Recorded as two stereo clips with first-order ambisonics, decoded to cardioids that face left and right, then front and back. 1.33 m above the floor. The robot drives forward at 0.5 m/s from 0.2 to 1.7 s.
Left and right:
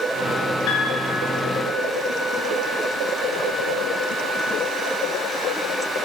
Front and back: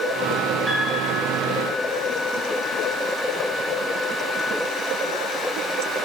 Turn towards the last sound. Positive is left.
turn(degrees=120)